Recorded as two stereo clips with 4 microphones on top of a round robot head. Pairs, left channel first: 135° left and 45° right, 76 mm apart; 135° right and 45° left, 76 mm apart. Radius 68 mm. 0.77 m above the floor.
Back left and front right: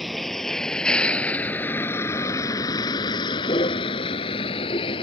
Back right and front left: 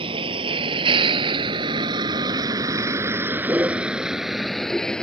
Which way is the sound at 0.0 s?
45° left.